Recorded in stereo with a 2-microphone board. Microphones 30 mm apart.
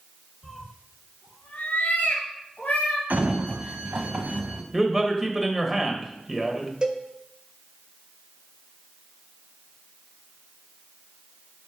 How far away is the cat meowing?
About 1.9 m.